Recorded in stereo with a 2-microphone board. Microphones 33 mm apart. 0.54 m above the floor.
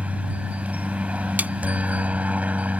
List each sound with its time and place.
0.0 s a helicopter: 45° right (ahead or behind)
1.4 s a snare drum: 55° right (ahead or behind)